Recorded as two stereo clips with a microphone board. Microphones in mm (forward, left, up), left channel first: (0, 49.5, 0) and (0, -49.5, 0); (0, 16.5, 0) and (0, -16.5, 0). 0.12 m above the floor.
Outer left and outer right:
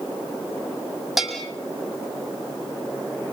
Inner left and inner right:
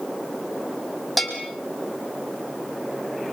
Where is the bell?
Centre (ahead or behind), 5 m.